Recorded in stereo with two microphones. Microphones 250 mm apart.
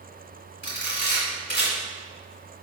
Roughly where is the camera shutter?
Left.